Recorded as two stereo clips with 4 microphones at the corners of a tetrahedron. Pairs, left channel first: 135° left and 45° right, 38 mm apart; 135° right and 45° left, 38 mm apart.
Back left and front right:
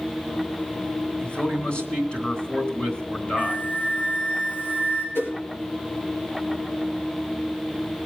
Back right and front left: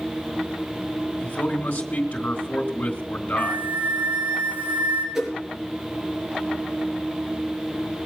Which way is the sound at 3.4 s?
95° left.